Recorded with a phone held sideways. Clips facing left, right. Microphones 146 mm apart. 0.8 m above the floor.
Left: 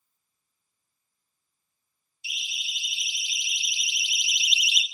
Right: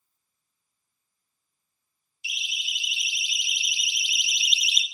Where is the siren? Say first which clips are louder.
Right 2 dB; 20° right (ahead or behind), 4.5 m; by 4.8 s 30° right (ahead or behind), 1.2 m.